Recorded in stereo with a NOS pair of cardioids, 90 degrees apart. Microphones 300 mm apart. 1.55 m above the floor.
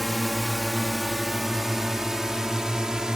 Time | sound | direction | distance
0.0 | a drone | straight ahead | ?